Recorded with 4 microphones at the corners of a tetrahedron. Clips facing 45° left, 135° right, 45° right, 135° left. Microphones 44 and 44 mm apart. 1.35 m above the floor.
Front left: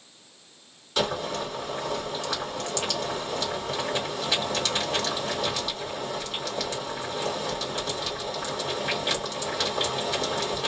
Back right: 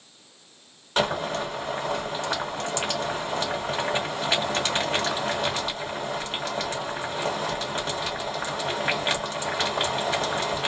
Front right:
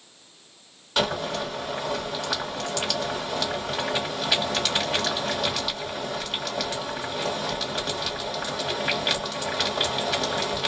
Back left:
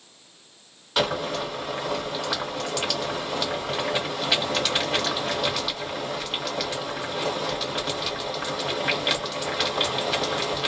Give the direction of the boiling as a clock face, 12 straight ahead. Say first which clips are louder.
Back right 2 dB, back left 1 dB; 5 o'clock.